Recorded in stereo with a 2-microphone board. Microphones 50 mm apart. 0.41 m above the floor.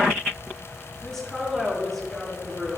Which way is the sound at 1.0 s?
10° left (ahead or behind).